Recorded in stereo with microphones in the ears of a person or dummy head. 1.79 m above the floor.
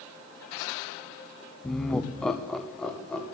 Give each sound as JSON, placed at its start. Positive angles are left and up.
{"t": 1.6, "sound": "laughter", "side_deg": 5, "distance_m": 0.6}